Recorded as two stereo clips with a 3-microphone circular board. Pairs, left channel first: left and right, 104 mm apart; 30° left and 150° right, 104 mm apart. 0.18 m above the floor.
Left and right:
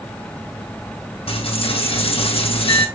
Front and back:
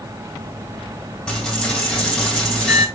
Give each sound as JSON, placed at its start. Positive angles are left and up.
{"t": 1.3, "sound": "a dropped coin", "azimuth_deg": 110, "distance_m": 3.0}